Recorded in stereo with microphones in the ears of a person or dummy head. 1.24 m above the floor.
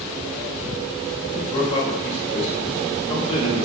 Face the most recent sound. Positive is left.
turn(degrees=30)  # may be behind; listen again after turning